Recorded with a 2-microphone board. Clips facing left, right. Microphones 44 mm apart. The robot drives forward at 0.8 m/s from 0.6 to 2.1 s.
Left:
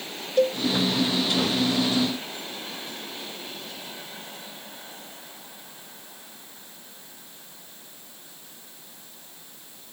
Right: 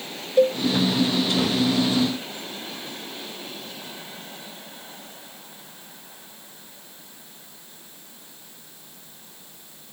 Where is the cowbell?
10° right (ahead or behind).